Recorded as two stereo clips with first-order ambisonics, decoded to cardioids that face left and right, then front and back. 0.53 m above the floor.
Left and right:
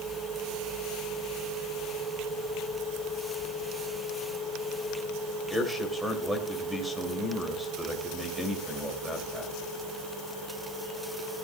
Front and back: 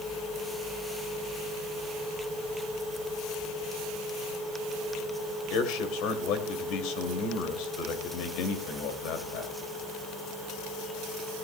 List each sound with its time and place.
5.5 s a man speaking: 5° right, 2.5 m